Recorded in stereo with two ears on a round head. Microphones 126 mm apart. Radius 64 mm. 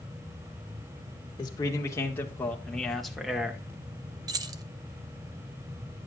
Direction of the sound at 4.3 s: 30° right (ahead or behind).